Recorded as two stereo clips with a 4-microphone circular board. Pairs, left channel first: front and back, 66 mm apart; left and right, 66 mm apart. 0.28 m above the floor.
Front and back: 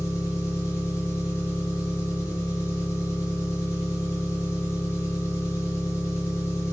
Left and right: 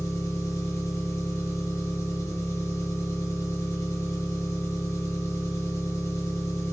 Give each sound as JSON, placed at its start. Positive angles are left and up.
{"t": 0.0, "sound": "an engine running", "azimuth_deg": 45, "distance_m": 4.0}